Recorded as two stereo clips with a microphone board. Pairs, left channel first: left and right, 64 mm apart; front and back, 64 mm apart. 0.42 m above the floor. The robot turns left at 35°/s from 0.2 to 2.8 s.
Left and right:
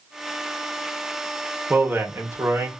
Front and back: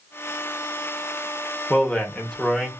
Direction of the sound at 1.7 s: 50° right.